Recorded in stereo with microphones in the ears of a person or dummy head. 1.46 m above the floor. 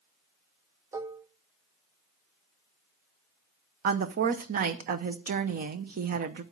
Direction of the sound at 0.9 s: 15° right (ahead or behind).